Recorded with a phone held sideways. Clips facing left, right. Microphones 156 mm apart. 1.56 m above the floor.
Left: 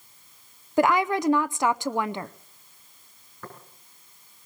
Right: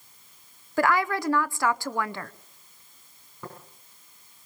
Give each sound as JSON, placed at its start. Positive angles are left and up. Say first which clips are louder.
{"t": 0.8, "sound": "a woman speaking", "louder": "left 3 dB", "side_deg": 20, "distance_m": 0.6}
{"t": 3.4, "sound": "tapping", "louder": "right 1 dB", "side_deg": -15, "distance_m": 6.5}